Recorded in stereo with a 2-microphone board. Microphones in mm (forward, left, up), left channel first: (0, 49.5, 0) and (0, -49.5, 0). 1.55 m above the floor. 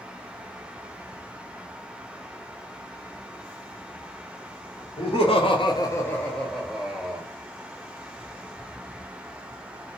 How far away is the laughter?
About 0.8 m.